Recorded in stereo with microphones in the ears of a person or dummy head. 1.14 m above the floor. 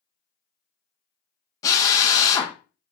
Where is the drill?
15° left (ahead or behind), 0.9 m.